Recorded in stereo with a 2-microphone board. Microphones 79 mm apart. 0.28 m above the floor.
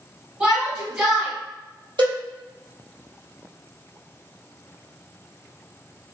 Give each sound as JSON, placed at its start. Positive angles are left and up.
{"t": 0.4, "sound": "a shout", "side_deg": -15, "distance_m": 1.9}
{"t": 2.0, "sound": "a cowbell", "side_deg": -90, "distance_m": 1.8}